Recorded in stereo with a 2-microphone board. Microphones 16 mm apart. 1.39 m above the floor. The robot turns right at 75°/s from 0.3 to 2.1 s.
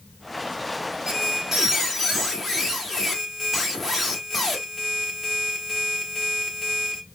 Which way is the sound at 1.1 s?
85° right.